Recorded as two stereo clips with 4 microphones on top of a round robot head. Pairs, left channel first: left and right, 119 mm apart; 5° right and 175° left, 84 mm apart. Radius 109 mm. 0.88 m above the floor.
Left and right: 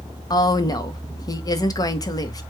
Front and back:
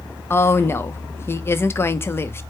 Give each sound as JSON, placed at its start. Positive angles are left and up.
{"t": 0.3, "sound": "a woman speaking", "azimuth_deg": 45, "distance_m": 0.8}